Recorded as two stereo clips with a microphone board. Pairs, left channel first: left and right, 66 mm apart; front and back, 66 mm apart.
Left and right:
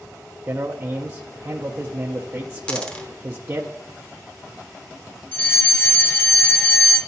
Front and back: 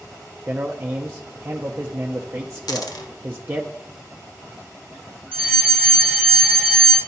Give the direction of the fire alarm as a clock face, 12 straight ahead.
8 o'clock.